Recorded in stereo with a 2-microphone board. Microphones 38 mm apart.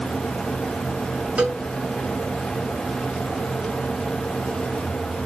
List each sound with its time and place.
1.4 s a cowbell: 50° right (ahead or behind), 1.4 m